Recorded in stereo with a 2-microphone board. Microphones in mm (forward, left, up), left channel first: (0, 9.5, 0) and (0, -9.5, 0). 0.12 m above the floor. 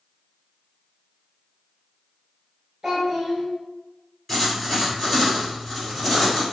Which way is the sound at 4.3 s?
15° left (ahead or behind).